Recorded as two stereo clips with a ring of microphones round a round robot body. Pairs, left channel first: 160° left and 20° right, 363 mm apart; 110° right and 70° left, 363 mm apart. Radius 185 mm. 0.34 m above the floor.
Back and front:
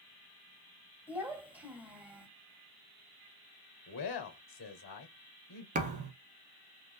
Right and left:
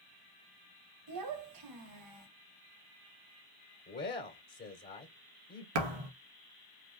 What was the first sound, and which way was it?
A child speaking, 65° left.